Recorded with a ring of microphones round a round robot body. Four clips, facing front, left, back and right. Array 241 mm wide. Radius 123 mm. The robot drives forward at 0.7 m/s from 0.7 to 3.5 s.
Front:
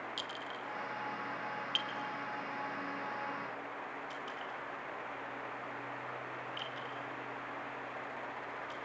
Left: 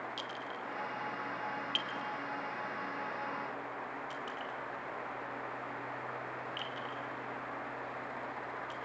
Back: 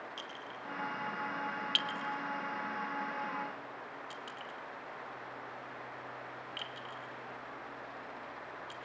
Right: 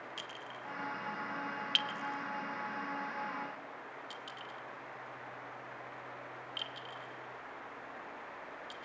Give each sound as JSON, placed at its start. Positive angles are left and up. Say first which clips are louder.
{"t": 0.2, "sound": "a clink", "louder": "left 5 dB, front 2 dB", "azimuth_deg": -45, "distance_m": 0.6}